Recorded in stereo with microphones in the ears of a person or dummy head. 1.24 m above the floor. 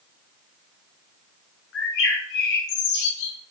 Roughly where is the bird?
Left.